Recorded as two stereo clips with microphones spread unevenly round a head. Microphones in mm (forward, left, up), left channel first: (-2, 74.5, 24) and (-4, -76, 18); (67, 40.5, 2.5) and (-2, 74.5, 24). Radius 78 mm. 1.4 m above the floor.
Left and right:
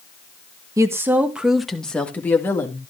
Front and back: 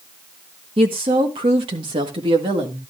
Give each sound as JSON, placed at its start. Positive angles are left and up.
{"t": 0.8, "sound": "a woman speaking", "azimuth_deg": -160, "distance_m": 1.3}